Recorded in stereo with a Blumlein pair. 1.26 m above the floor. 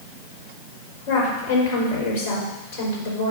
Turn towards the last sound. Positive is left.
turn(degrees=50)